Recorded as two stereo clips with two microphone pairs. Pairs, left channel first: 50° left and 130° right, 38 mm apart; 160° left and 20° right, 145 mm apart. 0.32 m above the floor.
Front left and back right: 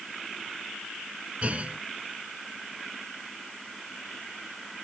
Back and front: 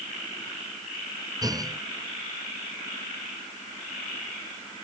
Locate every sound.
1.4 s a clunk: 80° right